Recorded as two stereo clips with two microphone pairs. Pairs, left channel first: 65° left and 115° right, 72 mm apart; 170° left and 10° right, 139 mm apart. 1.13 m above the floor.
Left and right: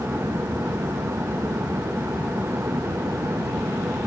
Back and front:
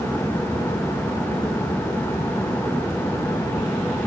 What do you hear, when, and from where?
Only background noise.